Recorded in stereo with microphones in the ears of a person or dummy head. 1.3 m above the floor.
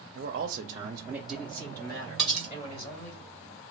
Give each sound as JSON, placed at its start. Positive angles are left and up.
{"t": 0.1, "sound": "a man speaking", "side_deg": -65, "distance_m": 0.6}
{"t": 2.2, "sound": "cutlery clinking", "side_deg": -5, "distance_m": 0.8}